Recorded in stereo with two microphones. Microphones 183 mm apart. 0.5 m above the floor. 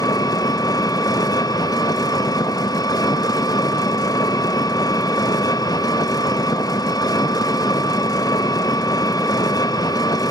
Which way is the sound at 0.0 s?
20° left (ahead or behind).